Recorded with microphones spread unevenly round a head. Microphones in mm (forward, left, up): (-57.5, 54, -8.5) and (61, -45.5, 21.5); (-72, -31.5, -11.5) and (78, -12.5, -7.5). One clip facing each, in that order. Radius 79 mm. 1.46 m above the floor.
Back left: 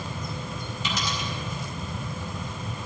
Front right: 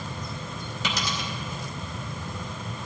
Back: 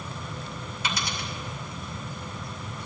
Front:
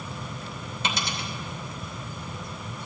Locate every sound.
0.8 s a dropped coin: 55° right, 2.5 m